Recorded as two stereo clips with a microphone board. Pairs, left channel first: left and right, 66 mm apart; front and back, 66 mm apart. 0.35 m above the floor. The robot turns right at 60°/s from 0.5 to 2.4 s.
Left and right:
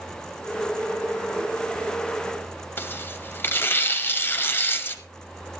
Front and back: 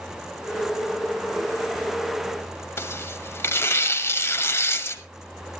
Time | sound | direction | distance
2.8 | tearing paper | 40° left | 1.2 m